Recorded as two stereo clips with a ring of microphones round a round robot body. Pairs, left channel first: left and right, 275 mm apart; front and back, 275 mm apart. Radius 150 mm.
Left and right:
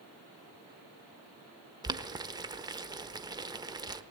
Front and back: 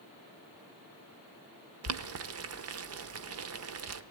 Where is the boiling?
165° right, 1.0 m.